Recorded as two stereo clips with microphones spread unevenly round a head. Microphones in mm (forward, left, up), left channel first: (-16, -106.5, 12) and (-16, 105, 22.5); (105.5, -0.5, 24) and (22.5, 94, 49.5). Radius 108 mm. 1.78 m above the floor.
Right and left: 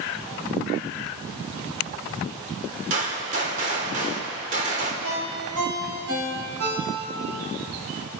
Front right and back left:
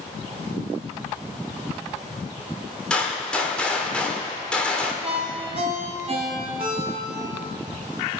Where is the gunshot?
40° left, 2 m.